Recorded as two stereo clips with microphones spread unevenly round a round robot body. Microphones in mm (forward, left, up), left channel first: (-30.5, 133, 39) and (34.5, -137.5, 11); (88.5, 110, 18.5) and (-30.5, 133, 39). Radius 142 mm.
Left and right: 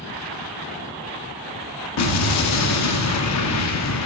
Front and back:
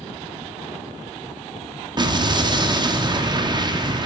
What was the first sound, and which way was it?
An explosion, 115° left.